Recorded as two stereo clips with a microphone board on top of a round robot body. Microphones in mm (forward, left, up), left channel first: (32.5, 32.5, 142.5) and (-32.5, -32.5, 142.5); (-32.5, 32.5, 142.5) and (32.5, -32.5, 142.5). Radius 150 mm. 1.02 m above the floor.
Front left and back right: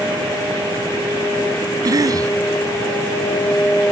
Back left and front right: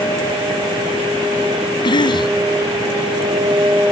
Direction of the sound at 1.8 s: 175° left.